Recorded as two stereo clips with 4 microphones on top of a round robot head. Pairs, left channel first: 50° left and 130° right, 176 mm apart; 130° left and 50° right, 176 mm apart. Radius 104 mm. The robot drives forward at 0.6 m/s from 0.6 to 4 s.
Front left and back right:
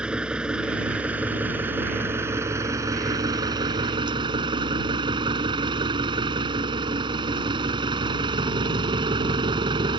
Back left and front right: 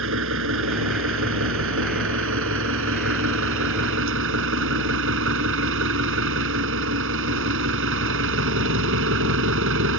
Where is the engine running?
45° right; by 10.0 s 65° right.